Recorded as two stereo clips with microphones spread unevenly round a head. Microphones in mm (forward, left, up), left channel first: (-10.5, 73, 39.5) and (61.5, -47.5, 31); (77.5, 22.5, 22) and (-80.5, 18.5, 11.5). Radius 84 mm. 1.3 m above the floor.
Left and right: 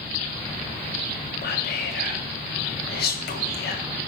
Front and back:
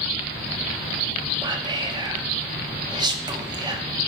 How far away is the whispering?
About 1.6 m.